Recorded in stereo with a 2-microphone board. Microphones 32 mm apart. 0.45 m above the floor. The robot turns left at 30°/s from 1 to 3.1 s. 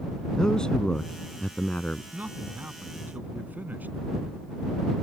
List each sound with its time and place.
0.4 s a man speaking: 155° left; by 2.0 s 125° left
2.1 s a man speaking: 75° right (ahead or behind); by 4.0 s 70° right (ahead or behind)